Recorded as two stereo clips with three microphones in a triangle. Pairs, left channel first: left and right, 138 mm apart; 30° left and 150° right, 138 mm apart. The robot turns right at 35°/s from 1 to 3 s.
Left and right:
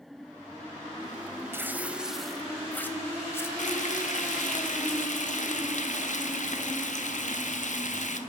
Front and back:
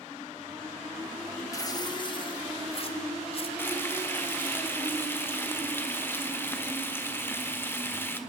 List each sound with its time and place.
1.5 s tearing paper: 25° right, 1.1 m; by 3.5 s 25° left, 1.1 m
3.6 s frying: 100° left, 1.2 m